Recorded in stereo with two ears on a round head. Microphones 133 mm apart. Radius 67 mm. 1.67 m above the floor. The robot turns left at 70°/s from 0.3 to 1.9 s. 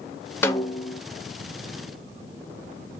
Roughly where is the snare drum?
Behind.